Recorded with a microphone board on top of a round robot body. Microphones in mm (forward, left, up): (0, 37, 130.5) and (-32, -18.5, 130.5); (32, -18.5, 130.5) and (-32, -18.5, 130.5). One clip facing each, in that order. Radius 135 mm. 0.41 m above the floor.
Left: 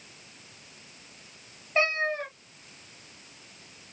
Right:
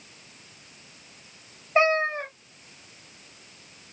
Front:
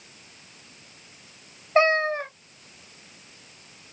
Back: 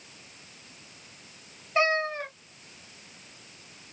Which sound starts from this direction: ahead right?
A cat meowing, at 1.8 s.